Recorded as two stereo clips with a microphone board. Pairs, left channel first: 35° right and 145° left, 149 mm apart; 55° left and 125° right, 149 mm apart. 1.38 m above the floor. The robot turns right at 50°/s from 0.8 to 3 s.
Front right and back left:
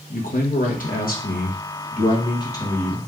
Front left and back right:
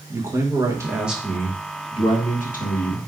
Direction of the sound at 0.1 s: 55° right.